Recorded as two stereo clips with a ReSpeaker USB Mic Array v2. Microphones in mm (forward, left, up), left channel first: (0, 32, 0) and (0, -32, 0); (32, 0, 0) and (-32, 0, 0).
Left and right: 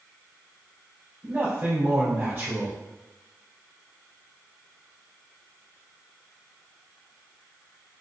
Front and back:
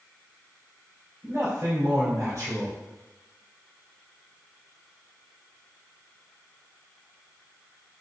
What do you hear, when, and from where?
1.2 s a man speaking: 145° right, 3 m